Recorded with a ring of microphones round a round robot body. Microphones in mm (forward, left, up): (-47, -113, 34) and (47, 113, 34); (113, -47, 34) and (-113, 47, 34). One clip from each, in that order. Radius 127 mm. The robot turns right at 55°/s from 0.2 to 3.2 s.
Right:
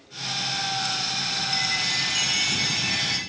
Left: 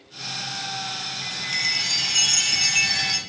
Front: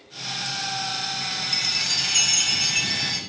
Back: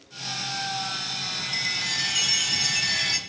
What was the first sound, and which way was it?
A chime, 25° right.